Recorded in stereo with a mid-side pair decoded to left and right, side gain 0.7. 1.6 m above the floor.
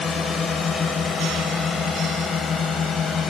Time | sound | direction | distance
0.0 | a drone | 30° left | ?